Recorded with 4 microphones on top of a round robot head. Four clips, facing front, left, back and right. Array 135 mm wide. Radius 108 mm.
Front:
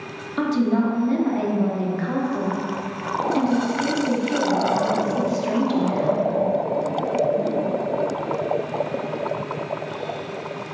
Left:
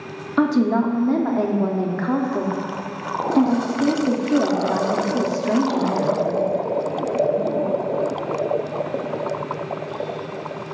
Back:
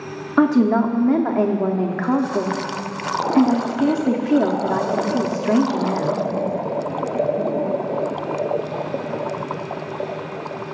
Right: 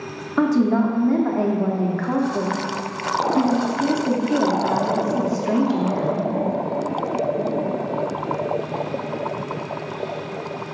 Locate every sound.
0.4 s a woman speaking: 165° left, 0.9 m